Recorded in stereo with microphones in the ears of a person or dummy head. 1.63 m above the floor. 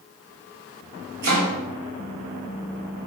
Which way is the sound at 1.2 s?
60° right (ahead or behind).